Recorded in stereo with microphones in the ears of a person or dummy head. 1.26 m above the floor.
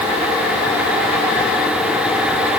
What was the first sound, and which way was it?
Only background noise.